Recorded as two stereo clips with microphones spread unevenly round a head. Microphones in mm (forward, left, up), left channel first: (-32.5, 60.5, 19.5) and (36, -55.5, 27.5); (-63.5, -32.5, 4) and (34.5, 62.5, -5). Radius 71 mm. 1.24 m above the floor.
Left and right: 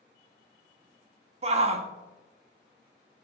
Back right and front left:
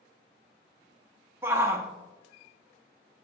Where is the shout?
25° right, 1.0 m.